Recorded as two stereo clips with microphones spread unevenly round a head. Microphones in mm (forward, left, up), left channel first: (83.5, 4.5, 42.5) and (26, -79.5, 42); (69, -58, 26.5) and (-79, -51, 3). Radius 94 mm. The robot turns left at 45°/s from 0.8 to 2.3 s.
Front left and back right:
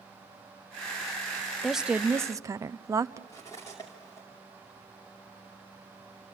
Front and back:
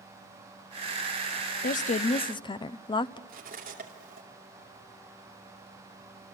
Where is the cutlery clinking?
130° left, 2.5 m.